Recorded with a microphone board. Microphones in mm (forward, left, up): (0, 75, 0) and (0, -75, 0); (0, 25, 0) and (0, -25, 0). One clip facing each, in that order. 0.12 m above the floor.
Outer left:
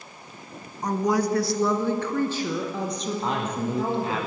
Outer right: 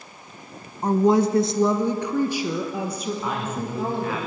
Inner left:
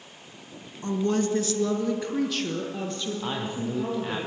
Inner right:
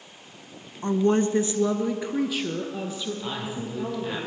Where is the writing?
I don't hear writing.